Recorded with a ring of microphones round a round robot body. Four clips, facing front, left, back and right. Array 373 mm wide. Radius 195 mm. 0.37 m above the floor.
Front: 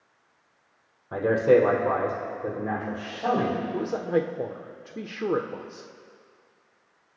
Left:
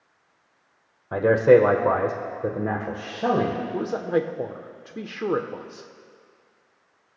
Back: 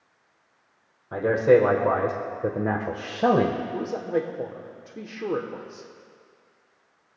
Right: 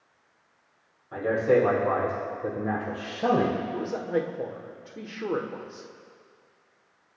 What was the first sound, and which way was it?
A man speaking, 90° left.